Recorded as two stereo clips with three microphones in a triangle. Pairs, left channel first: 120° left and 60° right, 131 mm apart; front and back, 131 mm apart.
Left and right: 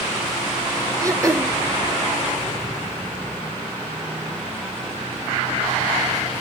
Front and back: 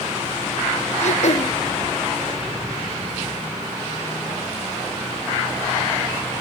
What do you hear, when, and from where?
1.0 s throat clearing: straight ahead, 0.9 m